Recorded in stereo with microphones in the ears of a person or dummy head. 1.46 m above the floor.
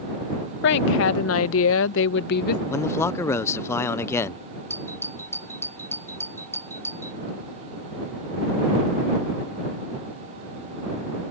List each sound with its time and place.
0.6 s a woman speaking: 60° left (ahead or behind); by 2.6 s 65° left (ahead or behind)
2.7 s a man speaking: 20° left (ahead or behind)
4.7 s a doorbell: 10° left (ahead or behind)